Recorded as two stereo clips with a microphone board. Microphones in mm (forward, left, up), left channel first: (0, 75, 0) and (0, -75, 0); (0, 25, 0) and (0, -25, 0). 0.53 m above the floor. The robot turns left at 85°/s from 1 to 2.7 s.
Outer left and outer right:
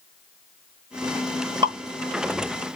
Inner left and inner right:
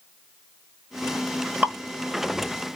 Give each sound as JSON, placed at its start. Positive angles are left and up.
{"t": 1.6, "sound": "dripping", "side_deg": -35, "distance_m": 1.9}